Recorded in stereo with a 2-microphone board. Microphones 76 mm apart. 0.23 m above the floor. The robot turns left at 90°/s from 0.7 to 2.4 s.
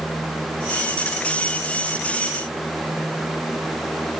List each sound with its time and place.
Only background noise.